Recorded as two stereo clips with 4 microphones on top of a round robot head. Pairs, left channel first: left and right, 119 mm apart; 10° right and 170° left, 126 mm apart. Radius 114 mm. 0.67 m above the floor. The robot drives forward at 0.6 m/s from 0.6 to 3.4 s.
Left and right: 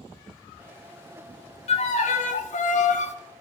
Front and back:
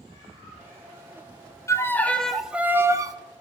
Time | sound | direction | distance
1.7 | a violin | 60° left | 1.1 m